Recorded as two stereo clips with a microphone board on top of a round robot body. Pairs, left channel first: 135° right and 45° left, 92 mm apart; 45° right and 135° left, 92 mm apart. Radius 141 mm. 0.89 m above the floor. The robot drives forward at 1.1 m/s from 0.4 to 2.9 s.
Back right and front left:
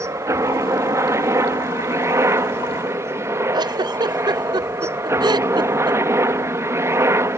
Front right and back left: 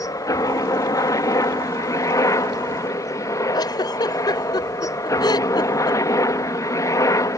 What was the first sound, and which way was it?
A helicopter, 5° right.